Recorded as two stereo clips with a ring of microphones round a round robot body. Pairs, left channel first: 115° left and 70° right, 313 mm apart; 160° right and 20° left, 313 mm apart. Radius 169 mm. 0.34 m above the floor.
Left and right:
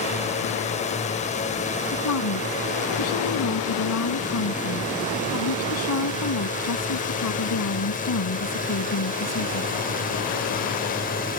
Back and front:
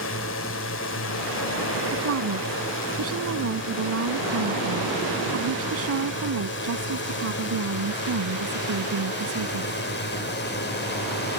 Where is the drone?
175° left; by 11.4 s 165° left.